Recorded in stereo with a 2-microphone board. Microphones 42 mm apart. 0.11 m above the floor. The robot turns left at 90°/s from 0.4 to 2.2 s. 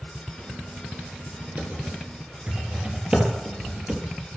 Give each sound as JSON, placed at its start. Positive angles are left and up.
{"t": 1.6, "sound": "typing on a keyboard", "side_deg": -55, "distance_m": 3.0}